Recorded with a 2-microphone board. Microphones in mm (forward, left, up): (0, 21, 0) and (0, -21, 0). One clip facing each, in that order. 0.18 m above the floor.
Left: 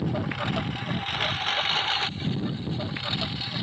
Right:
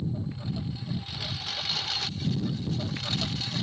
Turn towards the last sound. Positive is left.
turn(degrees=15)  # may be behind; listen again after turning